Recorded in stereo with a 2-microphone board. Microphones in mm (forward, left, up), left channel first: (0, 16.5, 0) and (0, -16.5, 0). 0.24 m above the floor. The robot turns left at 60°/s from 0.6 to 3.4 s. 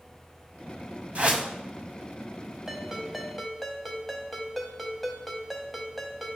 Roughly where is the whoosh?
Right.